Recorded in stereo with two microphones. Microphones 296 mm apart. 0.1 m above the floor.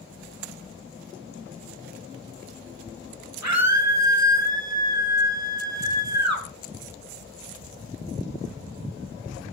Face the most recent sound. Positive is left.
turn(degrees=-65)  # may be behind; listen again after turning